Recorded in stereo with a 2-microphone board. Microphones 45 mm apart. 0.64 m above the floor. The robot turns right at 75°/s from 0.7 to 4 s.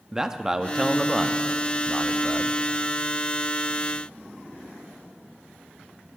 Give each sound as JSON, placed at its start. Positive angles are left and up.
{"t": 0.1, "sound": "a man speaking", "side_deg": -10, "distance_m": 0.6}